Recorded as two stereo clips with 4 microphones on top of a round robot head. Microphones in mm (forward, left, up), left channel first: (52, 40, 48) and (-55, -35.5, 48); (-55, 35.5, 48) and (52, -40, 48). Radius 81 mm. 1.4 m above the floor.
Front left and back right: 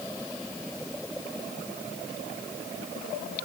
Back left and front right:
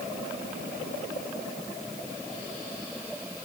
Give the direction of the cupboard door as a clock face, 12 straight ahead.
I don't hear a cupboard door.